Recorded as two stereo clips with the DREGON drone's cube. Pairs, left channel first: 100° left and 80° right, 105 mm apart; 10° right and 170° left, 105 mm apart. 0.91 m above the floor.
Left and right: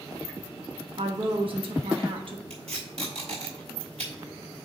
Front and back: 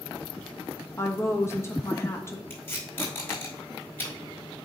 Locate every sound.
1.0 s a woman speaking: 70° right, 1.1 m
2.5 s tape being pulled: 80° right, 3.5 m